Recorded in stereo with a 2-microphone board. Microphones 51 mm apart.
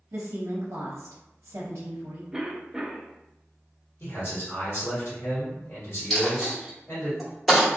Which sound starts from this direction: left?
A man speaking, at 4.0 s.